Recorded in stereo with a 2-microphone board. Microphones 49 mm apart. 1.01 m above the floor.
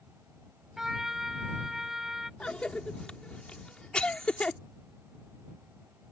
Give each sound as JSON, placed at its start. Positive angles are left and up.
{"t": 0.8, "sound": "a trumpet", "side_deg": -10}
{"t": 2.4, "sound": "a cough", "side_deg": 20}